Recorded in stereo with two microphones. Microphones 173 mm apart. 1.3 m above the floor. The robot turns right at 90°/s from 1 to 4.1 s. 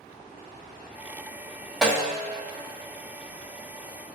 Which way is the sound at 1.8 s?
Centre (ahead or behind).